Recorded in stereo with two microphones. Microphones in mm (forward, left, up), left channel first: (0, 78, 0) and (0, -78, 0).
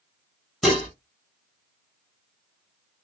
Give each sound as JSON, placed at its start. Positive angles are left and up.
{"t": 0.6, "sound": "dishes clattering", "side_deg": 0, "distance_m": 1.8}